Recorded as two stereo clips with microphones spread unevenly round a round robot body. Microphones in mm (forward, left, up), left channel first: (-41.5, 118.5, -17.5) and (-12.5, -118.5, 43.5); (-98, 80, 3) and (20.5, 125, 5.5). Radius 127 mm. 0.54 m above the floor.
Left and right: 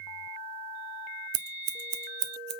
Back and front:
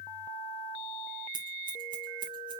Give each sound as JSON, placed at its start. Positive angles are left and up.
{"t": 1.3, "sound": "scissors", "azimuth_deg": -45, "distance_m": 0.5}